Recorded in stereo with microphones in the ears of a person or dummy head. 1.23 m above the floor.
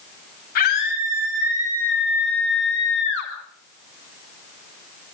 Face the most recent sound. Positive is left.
turn(degrees=75)  # may be behind; listen again after turning